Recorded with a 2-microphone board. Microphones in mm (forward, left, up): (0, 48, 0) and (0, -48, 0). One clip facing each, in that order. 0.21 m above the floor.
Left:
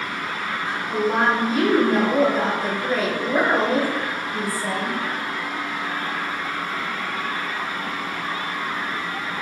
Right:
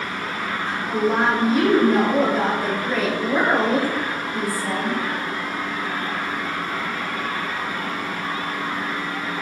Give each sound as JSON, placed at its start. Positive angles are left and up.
{"t": 0.7, "sound": "a woman speaking", "side_deg": 0, "distance_m": 1.4}